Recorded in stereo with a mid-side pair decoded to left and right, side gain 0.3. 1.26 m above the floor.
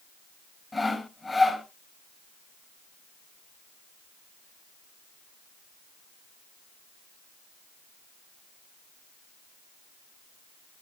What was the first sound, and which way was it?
Sawing, 40° left.